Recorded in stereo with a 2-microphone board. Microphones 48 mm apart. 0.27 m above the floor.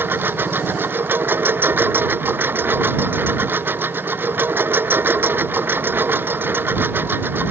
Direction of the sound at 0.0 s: 45° right (ahead or behind).